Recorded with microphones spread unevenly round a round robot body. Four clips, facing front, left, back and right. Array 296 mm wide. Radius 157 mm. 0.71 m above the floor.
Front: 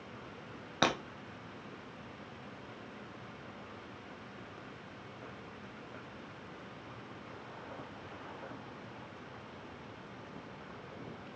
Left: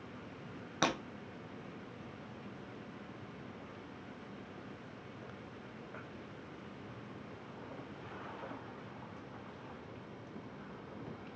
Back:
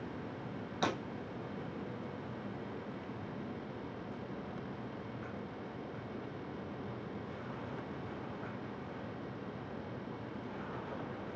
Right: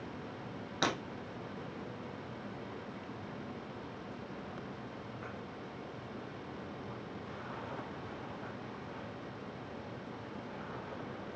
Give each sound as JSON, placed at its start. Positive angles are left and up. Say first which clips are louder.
{"t": 0.8, "sound": "breaking glass", "louder": "even, front 4 dB", "azimuth_deg": 10, "distance_m": 1.0}